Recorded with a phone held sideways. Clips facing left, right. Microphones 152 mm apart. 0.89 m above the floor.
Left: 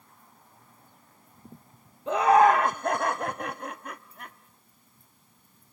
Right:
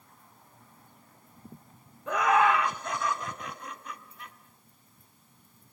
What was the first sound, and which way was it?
Laughter, 20° left (ahead or behind).